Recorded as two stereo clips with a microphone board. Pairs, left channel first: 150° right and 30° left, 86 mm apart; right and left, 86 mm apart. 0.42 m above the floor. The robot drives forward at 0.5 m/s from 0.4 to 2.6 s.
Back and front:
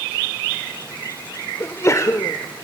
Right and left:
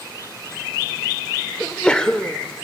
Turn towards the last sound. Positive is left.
turn(degrees=-170)